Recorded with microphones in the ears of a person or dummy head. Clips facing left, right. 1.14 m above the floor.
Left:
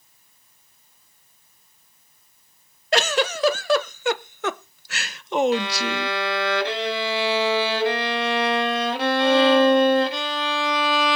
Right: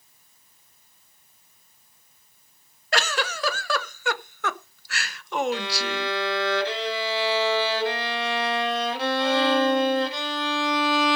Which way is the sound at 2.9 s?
20° left (ahead or behind).